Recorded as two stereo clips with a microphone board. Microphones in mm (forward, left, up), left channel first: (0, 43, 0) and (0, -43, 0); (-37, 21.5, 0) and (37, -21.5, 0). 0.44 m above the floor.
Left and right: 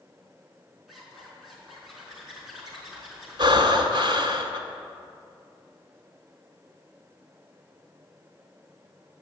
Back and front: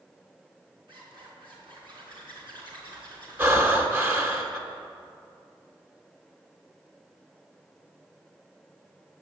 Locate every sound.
0.9 s a zipper: straight ahead, 4 m
3.4 s breathing: 90° right, 1.4 m